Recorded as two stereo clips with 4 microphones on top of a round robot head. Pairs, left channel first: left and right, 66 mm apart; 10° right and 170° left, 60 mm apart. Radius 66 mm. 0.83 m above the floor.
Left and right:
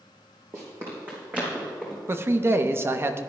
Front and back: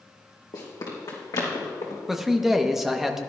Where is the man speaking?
110° right, 0.8 m.